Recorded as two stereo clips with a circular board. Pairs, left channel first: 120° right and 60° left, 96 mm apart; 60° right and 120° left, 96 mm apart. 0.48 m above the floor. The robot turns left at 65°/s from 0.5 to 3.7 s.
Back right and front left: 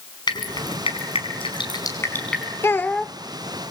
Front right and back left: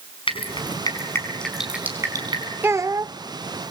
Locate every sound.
0.3 s dripping: 80° right, 5.5 m; by 2.5 s 150° left, 5.5 m
2.6 s a child speaking: 175° right, 0.5 m; by 3.1 s 150° left, 0.5 m